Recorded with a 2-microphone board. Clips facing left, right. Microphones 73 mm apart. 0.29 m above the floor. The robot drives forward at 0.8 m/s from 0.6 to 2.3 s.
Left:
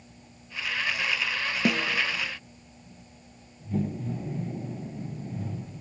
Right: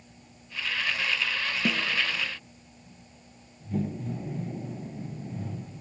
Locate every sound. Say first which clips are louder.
1.6 s a snare drum: left 3 dB; 70° left (ahead or behind), 1.1 m; by 2.0 s 85° left, 1.1 m